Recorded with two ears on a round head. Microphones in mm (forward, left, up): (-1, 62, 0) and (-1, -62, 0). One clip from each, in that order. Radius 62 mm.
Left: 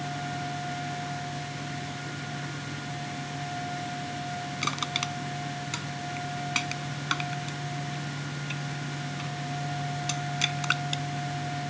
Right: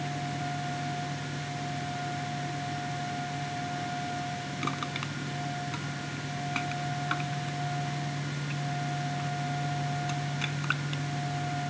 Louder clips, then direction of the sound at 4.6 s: Left 5 dB; 85° left.